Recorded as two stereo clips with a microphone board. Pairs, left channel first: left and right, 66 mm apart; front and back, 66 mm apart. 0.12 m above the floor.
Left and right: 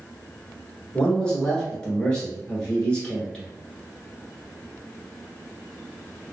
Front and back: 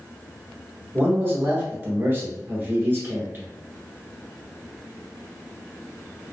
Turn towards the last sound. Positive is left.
turn(degrees=155)